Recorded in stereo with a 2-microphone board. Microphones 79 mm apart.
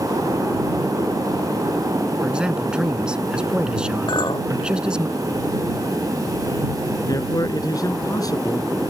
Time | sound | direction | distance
2.2 | a man speaking | 10° right (ahead or behind) | ?
4.1 | a clink | 85° left | ?
7.0 | a man speaking | 50° left (ahead or behind) | ?